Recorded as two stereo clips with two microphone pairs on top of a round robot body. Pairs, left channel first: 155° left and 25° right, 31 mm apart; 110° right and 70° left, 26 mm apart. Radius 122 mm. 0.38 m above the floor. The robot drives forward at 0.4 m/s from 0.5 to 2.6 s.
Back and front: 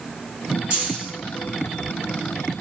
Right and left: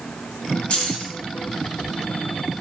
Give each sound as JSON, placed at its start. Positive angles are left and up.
{"t": 0.7, "sound": "keys jangling", "azimuth_deg": -80, "distance_m": 3.5}